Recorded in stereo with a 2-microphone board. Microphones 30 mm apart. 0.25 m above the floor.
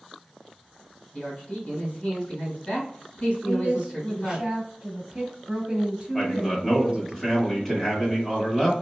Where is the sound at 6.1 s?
20° left (ahead or behind), 1.3 m.